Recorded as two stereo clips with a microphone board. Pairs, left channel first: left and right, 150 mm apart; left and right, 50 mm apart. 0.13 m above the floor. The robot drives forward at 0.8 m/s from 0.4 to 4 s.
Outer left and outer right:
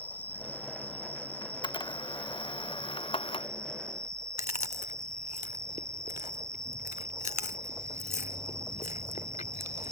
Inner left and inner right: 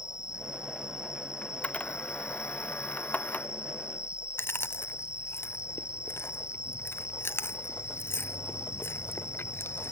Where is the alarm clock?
No alarm clock in this recording.